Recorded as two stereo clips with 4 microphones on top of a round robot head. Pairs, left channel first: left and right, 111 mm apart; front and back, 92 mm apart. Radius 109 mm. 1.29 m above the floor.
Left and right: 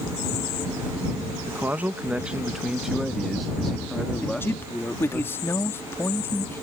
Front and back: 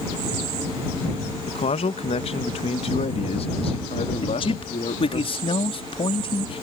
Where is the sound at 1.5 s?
15° right; by 5.2 s 10° left.